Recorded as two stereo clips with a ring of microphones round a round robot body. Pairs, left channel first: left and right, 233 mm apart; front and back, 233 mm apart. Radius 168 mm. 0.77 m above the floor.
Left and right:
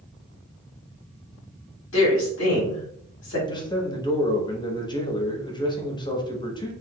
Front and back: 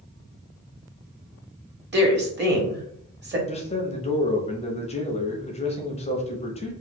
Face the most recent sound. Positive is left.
turn(degrees=35)